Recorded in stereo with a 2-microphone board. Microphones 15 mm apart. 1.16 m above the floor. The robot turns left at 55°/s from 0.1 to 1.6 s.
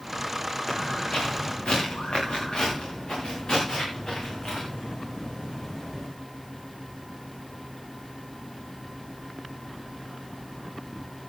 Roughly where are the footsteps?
Left.